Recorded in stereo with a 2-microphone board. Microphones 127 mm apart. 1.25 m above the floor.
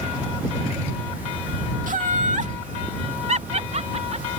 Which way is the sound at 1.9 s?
75° right (ahead or behind).